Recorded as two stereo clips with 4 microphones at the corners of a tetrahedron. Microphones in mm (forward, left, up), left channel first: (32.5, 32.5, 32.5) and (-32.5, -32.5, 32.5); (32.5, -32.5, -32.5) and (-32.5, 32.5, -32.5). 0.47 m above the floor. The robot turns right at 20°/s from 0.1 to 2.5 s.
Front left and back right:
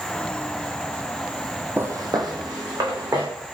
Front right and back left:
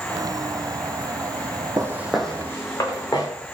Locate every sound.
1.8 s footsteps: 170° left, 0.7 m; by 3.3 s 90° right, 1.7 m